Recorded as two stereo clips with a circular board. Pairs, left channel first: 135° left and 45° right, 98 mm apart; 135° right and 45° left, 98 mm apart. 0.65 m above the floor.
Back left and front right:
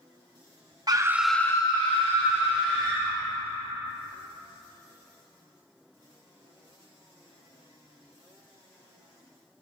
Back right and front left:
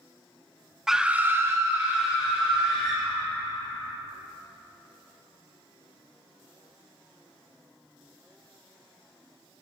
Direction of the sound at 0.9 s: 40° right.